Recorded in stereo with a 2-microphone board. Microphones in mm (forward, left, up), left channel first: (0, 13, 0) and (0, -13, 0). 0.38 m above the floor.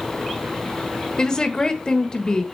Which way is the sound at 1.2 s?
30° left (ahead or behind).